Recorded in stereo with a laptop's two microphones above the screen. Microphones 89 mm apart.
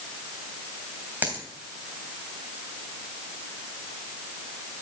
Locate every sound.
1.2 s a dropped coin: 20° right (ahead or behind), 2.5 m